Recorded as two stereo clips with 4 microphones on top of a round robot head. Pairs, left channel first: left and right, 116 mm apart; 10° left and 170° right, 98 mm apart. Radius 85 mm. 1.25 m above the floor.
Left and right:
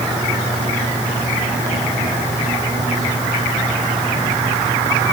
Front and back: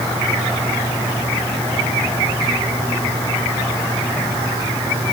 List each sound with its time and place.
Only background noise.